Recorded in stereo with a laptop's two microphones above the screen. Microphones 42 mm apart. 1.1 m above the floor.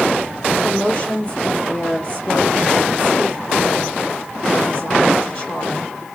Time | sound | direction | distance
0.6 | a woman speaking | 30° left (ahead or behind) | 2.5 m